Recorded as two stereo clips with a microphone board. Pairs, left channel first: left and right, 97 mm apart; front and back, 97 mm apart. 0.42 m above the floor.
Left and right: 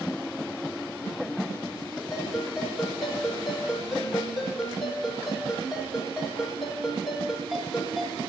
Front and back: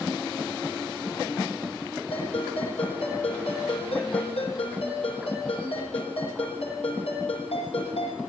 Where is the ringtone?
5° right, 10 m.